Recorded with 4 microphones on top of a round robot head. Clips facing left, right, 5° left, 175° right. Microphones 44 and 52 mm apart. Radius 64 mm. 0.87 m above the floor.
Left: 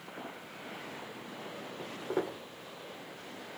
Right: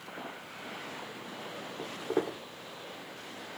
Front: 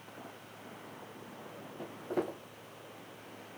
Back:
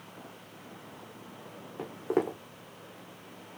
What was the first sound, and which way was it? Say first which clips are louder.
Footsteps: right 3 dB, back 6 dB; 175° right.